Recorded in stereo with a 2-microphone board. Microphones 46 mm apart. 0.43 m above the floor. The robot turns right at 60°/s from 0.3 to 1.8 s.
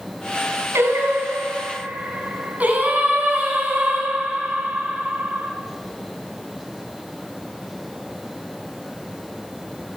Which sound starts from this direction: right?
Singing, at 0.7 s.